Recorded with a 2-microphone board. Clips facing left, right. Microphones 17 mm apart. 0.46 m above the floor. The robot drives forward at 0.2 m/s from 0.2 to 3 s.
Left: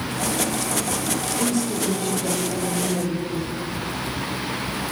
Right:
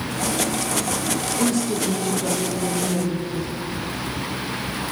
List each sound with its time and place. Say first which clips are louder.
1.4 s a woman speaking: right 2 dB; 40° right (ahead or behind), 8 m